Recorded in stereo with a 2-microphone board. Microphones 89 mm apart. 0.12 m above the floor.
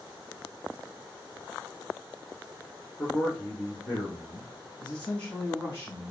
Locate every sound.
3.0 s a man speaking: 5° left (ahead or behind), 1.4 m; by 6.1 s 20° left (ahead or behind), 2.5 m